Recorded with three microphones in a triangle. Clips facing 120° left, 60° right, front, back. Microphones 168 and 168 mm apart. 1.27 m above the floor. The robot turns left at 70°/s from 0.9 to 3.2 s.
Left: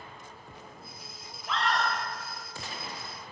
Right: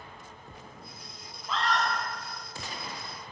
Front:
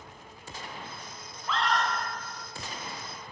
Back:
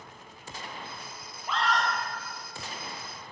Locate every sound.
1.5 s a scream: 110° left, 0.8 m; by 1.9 s 80° left, 0.8 m